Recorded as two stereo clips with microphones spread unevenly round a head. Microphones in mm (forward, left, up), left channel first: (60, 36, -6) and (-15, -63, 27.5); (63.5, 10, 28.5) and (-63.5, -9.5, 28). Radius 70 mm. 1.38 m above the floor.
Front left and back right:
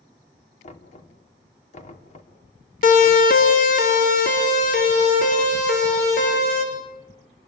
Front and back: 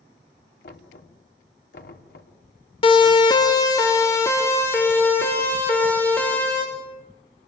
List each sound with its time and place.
0.6 s knocking: 20° left, 3 m
2.8 s a siren: 60° left, 2.5 m; by 6.6 s 85° left, 8 m